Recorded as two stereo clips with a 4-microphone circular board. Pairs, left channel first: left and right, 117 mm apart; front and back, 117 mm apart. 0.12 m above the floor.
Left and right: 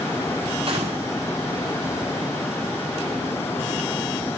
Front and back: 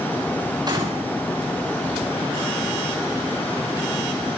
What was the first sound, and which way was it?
A gunshot, 125° right.